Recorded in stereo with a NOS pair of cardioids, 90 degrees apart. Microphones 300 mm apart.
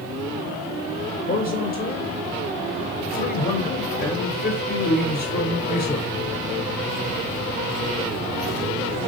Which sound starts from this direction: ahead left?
A man speaking, at 1.3 s.